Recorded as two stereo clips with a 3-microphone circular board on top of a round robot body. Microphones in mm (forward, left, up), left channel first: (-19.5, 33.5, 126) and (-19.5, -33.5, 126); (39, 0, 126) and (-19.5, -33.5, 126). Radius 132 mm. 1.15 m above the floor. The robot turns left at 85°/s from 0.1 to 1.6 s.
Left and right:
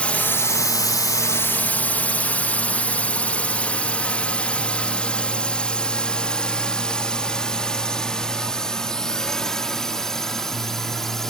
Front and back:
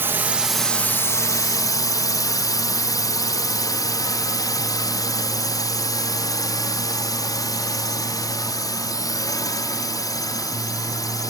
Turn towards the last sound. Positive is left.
turn(degrees=5)